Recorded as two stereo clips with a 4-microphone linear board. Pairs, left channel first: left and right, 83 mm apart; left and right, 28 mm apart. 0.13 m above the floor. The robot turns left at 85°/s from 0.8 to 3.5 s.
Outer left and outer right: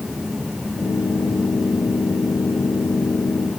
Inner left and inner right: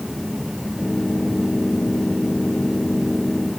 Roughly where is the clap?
No clap in this recording.